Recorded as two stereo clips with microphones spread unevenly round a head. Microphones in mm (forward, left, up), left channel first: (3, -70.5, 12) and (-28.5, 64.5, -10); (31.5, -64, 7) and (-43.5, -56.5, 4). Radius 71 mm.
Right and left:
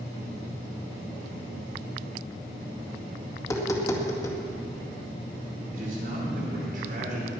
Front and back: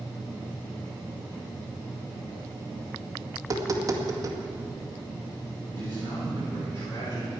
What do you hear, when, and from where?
3.4 s tapping: 145° right, 2 m
5.7 s a man speaking: 65° left, 5.5 m